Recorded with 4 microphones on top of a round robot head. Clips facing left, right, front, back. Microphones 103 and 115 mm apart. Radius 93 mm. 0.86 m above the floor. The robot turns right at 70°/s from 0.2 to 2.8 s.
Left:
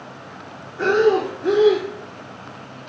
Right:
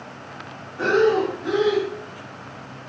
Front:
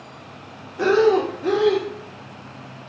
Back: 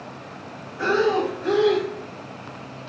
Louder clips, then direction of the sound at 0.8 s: Left 2 dB, front 4 dB; 15° right.